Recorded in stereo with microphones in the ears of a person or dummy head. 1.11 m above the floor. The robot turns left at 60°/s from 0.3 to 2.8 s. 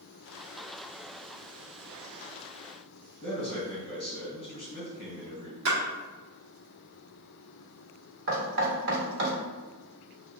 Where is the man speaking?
25° left (ahead or behind), 1.2 m.